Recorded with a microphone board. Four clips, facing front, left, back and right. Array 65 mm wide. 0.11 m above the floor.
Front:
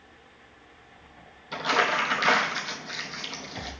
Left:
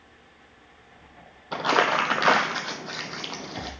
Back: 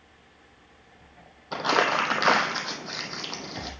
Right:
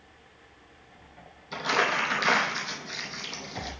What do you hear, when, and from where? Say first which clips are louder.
1.5 s crumpling: left 4 dB, back 1 dB; 125° left, 0.9 m